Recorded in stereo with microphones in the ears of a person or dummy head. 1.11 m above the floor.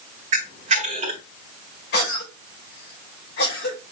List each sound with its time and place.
0.3 s a camera shutter: 35° right (ahead or behind), 1.1 m
1.9 s a cough: 65° left (ahead or behind), 4 m